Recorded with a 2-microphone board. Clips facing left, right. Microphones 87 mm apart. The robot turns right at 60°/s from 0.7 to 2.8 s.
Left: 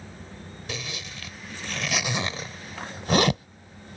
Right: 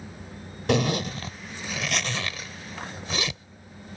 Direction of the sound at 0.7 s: 65° right (ahead or behind).